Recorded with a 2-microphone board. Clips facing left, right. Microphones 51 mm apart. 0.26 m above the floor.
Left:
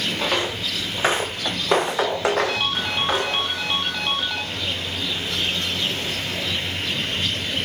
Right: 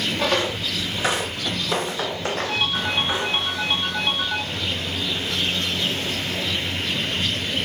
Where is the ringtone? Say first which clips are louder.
Even; 75° left (ahead or behind), 4 m.